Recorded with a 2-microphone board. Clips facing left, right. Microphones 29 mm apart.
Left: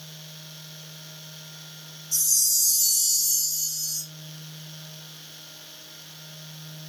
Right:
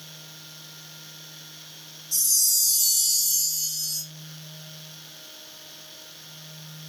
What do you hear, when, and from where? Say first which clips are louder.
2.1 s a chime: even; 60° right (ahead or behind), 2.5 m